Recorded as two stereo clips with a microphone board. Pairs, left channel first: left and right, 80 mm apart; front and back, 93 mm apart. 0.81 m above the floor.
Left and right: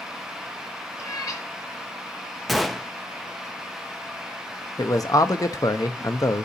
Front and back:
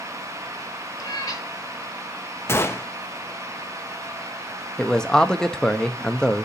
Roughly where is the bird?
No bird in this recording.